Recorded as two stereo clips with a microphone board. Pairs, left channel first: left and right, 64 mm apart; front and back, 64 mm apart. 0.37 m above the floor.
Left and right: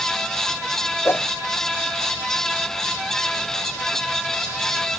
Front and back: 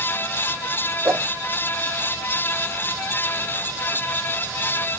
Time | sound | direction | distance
1.1 | a whoosh | 135° left | 0.6 m